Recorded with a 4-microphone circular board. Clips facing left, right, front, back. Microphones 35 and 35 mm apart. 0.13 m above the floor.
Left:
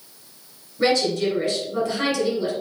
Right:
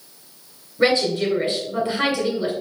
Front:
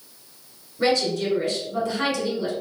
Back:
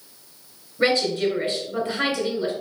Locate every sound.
0.8 s a woman speaking: 125° right, 1.9 m